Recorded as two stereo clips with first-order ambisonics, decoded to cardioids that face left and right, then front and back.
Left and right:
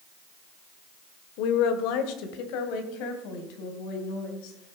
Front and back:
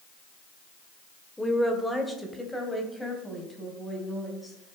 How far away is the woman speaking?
About 1.6 m.